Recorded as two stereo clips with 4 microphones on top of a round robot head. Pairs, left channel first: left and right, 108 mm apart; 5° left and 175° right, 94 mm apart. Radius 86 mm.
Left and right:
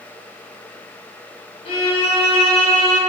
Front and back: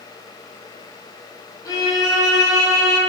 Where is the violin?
55° left, 0.6 m.